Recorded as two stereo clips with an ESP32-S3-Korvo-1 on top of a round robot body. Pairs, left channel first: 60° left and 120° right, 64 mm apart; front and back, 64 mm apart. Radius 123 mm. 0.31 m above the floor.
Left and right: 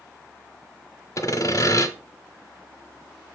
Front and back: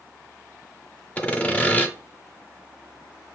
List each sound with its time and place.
1.2 s sawing: 65° left, 0.8 m